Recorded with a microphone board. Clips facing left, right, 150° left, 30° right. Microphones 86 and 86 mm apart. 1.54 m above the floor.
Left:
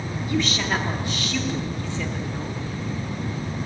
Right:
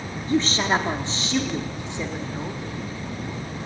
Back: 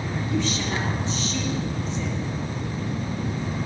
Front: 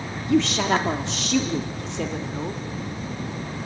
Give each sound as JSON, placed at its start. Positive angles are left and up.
{"t": 0.3, "sound": "a woman speaking", "azimuth_deg": -35, "distance_m": 2.5}